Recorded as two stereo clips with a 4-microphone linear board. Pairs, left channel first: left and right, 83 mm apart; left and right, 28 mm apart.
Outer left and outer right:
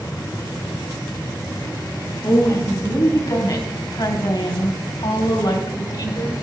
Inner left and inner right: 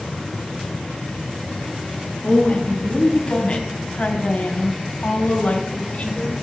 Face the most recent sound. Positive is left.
turn(degrees=55)  # may be behind; listen again after turning